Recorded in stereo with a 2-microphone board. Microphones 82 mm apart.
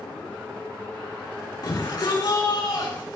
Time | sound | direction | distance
1.6 | a shout | 60° left (ahead or behind) | 5 m